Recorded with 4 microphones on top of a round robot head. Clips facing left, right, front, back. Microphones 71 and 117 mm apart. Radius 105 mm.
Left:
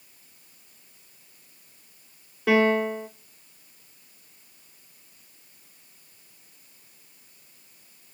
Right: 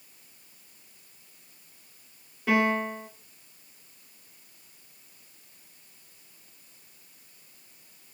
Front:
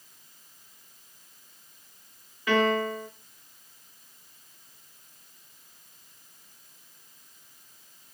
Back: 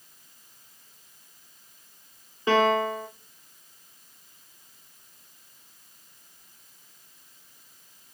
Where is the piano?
120° left, 1.1 m.